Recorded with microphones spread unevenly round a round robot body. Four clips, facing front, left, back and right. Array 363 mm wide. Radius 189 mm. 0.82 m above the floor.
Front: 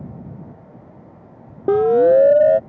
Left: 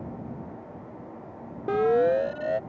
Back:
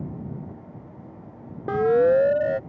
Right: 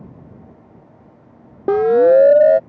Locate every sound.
1.7 s a siren: 45° right